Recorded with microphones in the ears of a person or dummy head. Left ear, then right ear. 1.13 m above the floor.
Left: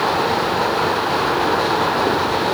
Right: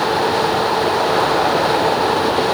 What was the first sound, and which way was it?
Only background noise.